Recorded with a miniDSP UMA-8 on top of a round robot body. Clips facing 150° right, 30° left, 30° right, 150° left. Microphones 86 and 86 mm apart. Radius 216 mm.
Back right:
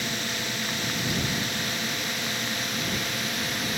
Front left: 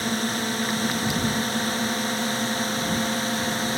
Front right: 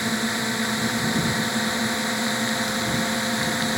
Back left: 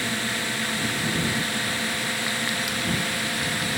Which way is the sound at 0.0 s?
25° left.